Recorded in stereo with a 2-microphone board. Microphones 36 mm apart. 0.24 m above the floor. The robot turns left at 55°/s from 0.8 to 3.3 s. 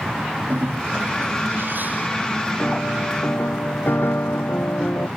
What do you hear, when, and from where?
0.5 s a bird: 65° right; by 2.1 s 140° right
2.6 s a piano: 135° left; by 5.1 s 95° left